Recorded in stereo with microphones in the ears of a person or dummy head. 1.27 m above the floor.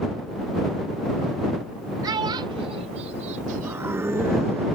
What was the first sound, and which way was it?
A child speaking, 25° right (ahead or behind).